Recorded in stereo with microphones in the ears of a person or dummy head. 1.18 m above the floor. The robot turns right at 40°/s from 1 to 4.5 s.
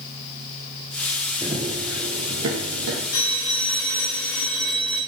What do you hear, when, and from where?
1.4 s running footsteps: 15° right (ahead or behind), 1.6 m; by 3.0 s 65° right (ahead or behind), 2.5 m
3.1 s a phone ringing: 125° left, 6.5 m; by 5.0 s straight behind, 6.5 m